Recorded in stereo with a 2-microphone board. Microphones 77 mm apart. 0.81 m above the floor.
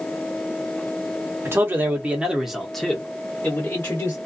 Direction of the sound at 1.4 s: 35° right (ahead or behind).